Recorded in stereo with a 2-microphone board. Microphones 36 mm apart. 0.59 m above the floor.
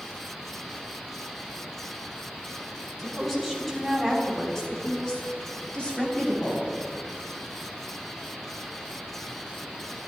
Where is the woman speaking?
Centre (ahead or behind), 4.5 m; by 6.7 s 40° left (ahead or behind), 3.5 m.